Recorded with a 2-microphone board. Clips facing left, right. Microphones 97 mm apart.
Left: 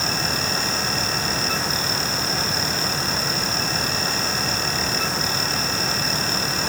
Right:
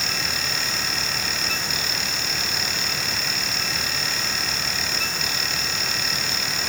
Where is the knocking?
I don't hear knocking.